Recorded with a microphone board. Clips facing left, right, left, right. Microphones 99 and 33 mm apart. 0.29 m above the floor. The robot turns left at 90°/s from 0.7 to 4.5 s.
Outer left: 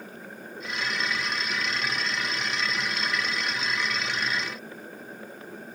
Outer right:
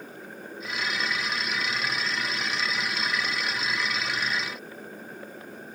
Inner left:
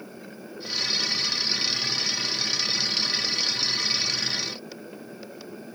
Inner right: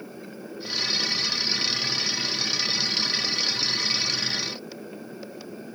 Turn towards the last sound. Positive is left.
No sound to turn to.